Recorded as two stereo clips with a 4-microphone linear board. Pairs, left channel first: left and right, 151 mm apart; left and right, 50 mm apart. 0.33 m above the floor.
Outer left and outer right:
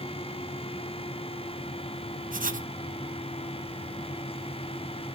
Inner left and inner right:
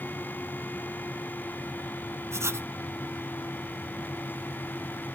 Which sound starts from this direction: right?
Writing, at 2.3 s.